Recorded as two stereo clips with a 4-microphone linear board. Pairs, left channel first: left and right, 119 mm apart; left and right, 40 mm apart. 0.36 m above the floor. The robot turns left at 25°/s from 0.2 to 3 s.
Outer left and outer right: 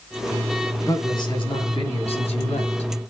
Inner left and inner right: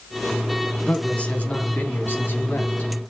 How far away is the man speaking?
About 3 m.